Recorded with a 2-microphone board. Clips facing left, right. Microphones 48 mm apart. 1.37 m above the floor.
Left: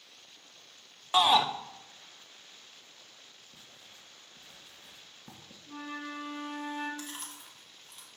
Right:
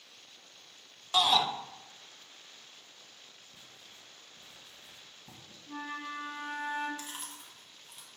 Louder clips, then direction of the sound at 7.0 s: Left 1 dB; 5° right (ahead or behind).